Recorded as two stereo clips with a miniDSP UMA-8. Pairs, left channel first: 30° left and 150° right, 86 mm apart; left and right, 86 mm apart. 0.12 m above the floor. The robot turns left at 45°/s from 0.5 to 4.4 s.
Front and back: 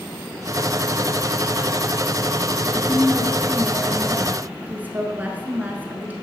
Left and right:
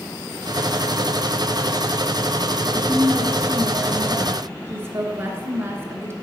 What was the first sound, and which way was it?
A woman speaking, 25° right.